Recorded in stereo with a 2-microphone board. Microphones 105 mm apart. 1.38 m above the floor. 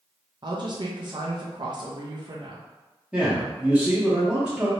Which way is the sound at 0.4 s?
45° right (ahead or behind).